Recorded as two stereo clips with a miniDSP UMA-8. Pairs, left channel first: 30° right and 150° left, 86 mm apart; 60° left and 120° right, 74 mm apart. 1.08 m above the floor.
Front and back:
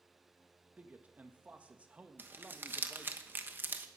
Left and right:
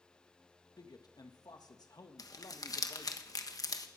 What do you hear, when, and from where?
0.8 s a man speaking: 80° left, 1.6 m
2.2 s crumpling: 85° left, 1.1 m